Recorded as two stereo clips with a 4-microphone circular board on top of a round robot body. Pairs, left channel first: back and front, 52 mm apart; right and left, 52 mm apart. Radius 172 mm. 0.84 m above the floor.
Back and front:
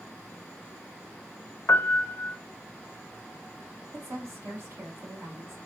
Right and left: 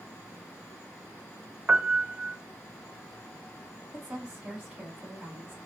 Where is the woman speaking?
20° left, 1.5 m.